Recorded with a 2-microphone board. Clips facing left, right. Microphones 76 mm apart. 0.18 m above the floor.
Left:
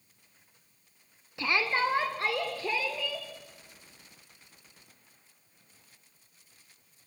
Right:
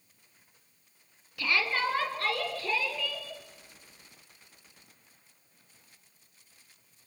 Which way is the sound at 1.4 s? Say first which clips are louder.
Left 1 dB; 25° left (ahead or behind).